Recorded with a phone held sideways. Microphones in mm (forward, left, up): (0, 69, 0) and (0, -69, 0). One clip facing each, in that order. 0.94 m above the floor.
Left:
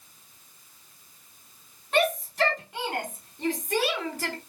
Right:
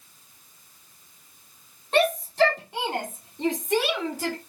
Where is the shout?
30° right (ahead or behind), 4 m; by 4.4 s 20° right (ahead or behind), 3 m.